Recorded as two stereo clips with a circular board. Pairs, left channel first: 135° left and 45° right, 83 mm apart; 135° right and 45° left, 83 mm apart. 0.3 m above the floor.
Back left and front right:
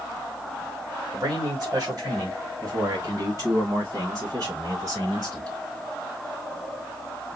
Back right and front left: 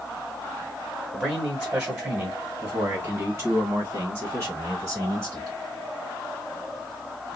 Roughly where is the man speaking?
Ahead right.